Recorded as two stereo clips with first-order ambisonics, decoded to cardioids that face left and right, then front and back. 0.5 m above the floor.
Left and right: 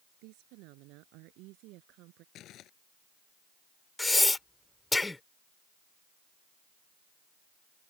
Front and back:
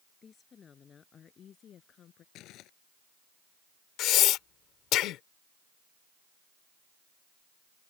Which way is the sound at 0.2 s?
70° right.